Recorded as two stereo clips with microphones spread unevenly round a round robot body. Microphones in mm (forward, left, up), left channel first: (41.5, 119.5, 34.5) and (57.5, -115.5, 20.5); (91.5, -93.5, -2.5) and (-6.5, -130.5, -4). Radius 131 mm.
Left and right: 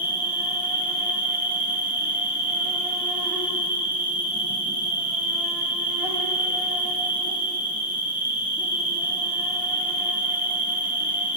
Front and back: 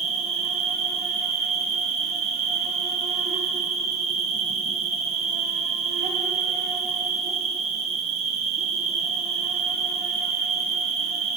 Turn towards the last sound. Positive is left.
turn(degrees=-170)